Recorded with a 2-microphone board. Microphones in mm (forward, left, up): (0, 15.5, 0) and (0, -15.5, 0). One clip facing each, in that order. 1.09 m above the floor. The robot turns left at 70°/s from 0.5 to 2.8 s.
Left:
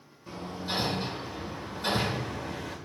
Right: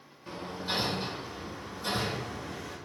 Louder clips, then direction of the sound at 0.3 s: Even; 25° right (ahead or behind).